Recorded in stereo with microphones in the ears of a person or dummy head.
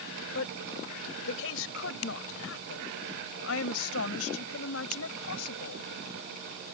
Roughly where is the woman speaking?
Left.